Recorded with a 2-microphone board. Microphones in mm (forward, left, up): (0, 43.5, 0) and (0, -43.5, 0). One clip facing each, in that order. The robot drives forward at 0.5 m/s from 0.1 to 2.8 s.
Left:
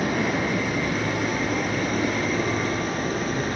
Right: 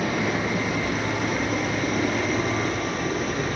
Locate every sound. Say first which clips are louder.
0.0 s running water: left 1 dB; 55° left (ahead or behind), 6 m; by 3.6 s 45° left (ahead or behind), 6.5 m